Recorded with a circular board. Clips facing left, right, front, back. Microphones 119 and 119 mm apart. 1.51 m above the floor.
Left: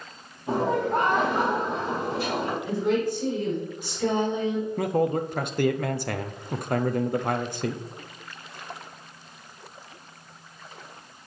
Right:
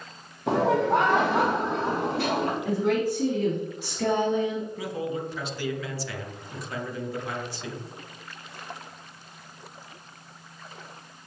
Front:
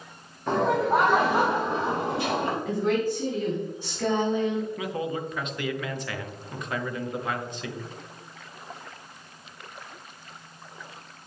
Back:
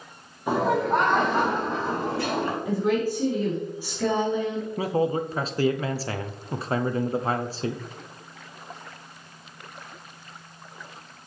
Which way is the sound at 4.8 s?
125° left.